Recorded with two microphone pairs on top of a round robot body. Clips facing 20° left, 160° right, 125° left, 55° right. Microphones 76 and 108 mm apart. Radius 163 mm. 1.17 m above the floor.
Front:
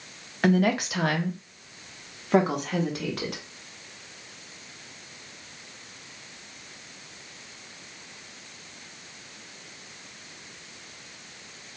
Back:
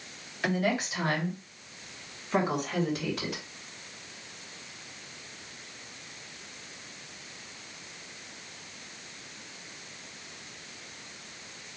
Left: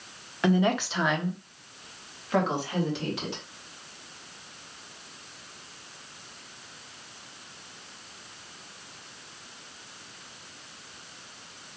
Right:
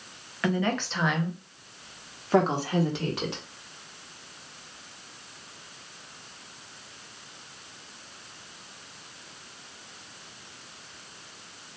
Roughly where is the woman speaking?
Ahead left.